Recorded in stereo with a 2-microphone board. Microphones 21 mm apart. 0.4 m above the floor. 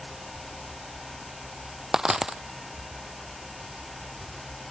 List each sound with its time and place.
1.9 s a dropped coin: 20° right (ahead or behind)